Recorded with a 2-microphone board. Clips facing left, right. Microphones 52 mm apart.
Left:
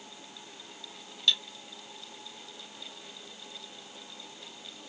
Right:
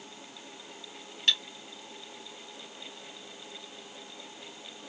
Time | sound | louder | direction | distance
1.3 | cutlery clinking | even | 50° right (ahead or behind) | 0.9 m